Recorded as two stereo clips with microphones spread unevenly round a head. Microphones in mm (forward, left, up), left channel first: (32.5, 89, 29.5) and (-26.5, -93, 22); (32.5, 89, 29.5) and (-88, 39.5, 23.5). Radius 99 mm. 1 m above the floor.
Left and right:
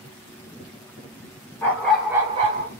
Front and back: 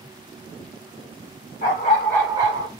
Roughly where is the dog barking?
Ahead.